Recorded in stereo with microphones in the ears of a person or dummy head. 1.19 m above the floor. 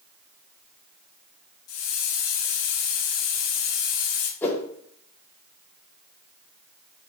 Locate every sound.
1.7 s a hiss: 70° left (ahead or behind), 1.2 m
4.4 s a whoosh: 10° left (ahead or behind), 0.8 m